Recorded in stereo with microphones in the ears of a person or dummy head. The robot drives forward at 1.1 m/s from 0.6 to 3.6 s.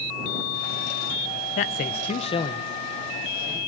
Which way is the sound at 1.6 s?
40° left (ahead or behind).